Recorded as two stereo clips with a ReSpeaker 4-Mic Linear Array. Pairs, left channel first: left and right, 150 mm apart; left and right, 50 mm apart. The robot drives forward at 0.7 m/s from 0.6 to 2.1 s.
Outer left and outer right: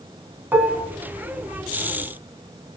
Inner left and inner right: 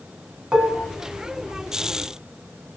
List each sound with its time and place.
0.5 s dishes clattering: 10° right (ahead or behind), 3.5 m; by 0.9 s 15° right (ahead or behind), 3.5 m